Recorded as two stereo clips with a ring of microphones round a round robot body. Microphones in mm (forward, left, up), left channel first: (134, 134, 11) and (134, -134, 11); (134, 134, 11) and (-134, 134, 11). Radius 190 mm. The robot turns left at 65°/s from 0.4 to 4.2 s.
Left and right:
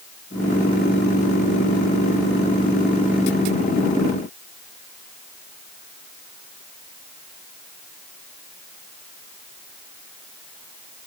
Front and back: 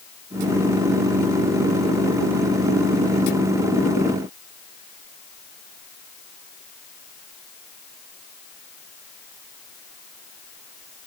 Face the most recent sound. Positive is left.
No sound to turn to.